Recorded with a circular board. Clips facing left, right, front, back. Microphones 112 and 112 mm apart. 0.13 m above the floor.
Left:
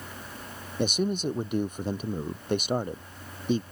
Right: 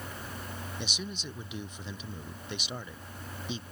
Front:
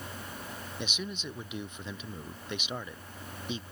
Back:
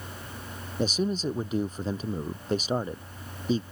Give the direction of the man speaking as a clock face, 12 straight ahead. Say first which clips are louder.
Left 17 dB, back 13 dB; 8 o'clock.